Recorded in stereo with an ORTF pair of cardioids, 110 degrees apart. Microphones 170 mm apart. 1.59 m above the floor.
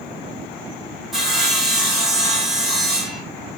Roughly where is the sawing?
Ahead.